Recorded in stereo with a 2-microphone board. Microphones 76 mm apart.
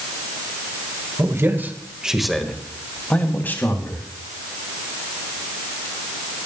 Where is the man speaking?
40° right (ahead or behind), 1.8 m; by 4.0 s 30° left (ahead or behind), 3.5 m.